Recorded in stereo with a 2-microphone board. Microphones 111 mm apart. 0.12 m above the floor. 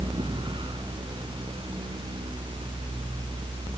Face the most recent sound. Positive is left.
No sound to turn to.